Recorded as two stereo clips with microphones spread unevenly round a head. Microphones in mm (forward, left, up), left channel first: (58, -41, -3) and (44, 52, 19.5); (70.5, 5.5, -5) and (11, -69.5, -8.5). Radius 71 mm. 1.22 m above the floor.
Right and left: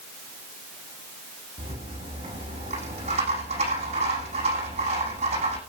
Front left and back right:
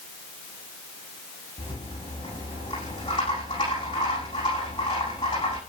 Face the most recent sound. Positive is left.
turn(degrees=110)